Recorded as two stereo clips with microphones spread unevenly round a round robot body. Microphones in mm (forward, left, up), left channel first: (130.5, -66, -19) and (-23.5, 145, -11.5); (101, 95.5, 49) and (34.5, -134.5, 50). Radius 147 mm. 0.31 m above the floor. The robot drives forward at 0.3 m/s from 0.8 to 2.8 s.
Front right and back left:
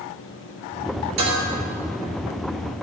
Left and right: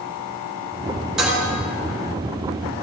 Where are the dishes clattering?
165° left, 3.5 m.